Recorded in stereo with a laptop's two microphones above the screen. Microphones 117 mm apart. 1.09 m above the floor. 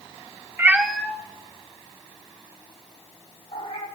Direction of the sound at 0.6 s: 20° right (ahead or behind).